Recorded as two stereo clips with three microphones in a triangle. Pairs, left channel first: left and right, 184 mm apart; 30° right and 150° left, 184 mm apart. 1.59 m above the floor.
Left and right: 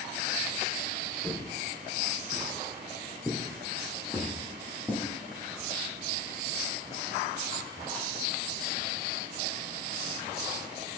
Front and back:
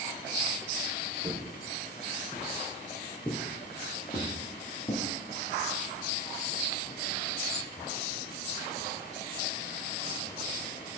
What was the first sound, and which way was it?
Footsteps, 160° right.